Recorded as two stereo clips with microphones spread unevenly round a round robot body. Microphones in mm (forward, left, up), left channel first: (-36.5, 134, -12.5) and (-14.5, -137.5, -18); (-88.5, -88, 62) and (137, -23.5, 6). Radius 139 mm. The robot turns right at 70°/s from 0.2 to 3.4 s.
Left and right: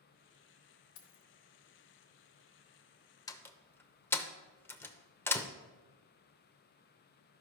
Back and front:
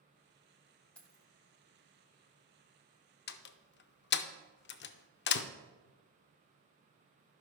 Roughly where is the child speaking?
I don't hear a child speaking.